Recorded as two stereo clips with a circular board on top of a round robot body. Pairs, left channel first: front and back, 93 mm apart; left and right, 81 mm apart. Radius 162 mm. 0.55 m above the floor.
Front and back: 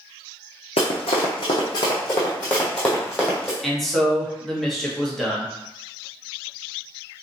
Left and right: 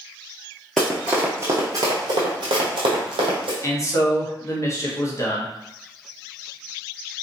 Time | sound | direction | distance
0.8 | running footsteps | straight ahead | 0.7 m
3.6 | a man speaking | 85° left | 1.4 m